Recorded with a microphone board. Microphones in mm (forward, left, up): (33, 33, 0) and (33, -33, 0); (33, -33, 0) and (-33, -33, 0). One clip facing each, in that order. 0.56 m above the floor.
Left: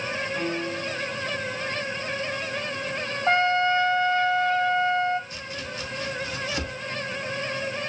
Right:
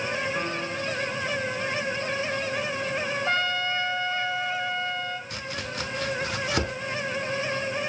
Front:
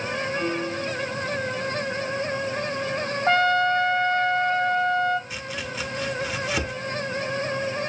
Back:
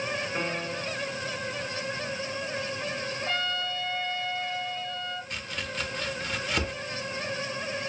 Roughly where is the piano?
Behind right.